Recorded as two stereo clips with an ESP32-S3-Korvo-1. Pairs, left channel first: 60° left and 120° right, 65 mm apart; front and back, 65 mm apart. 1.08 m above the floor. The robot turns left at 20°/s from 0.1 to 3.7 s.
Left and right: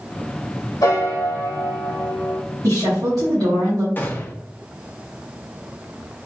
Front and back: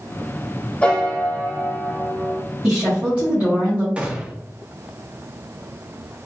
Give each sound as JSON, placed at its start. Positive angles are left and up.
{"t": 0.8, "sound": "a piano", "azimuth_deg": 70, "distance_m": 1.1}
{"t": 2.6, "sound": "a woman speaking", "azimuth_deg": -105, "distance_m": 1.4}
{"t": 4.0, "sound": "a gunshot", "azimuth_deg": 115, "distance_m": 0.7}